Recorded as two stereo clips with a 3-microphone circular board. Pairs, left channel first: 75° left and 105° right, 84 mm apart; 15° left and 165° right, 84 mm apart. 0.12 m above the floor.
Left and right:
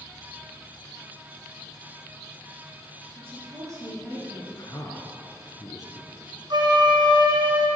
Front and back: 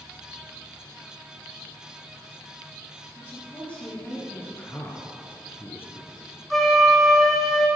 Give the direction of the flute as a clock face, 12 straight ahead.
3 o'clock.